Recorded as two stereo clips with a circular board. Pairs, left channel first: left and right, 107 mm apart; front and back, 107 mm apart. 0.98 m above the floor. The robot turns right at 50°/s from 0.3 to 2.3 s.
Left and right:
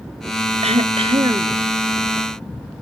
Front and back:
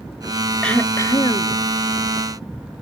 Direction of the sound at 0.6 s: 80° right.